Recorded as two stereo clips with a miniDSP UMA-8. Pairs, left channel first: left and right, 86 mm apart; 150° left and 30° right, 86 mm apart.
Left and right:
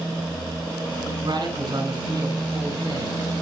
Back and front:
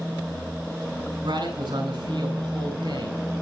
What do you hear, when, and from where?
1.2 s a man speaking: 60° right, 4.5 m